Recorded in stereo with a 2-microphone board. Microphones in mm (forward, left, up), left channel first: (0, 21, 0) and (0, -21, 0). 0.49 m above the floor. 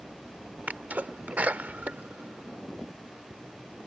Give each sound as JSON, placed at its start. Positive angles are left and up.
{"t": 0.7, "sound": "a sneeze", "side_deg": -40}